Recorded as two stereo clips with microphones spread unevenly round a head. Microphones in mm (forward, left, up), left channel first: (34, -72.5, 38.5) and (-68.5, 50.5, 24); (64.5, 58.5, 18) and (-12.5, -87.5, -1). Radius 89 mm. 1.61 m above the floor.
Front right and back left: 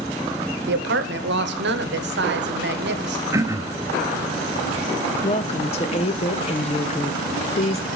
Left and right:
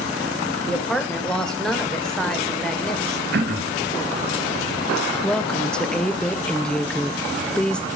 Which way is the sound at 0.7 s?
150° left.